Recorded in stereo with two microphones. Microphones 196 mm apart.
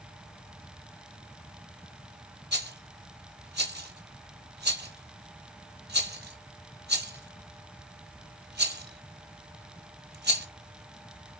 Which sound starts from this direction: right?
A rattle, at 2.5 s.